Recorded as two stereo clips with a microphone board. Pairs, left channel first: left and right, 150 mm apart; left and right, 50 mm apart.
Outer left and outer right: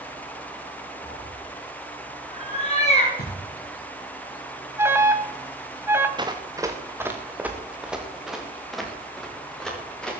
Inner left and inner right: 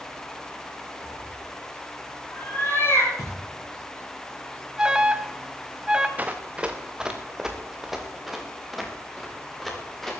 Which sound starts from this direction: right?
Running footsteps, at 6.2 s.